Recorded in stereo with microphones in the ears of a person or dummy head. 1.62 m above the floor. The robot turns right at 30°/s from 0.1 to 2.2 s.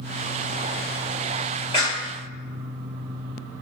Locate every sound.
1.7 s a clap: 25° left (ahead or behind), 3 m; by 2.1 s 15° left (ahead or behind), 3 m